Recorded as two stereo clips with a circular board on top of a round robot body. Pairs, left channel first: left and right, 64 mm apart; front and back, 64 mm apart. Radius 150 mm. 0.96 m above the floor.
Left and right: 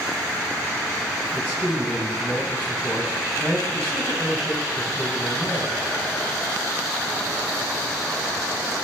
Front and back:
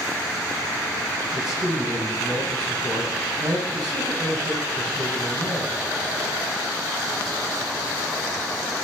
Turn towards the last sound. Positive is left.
turn(degrees=160)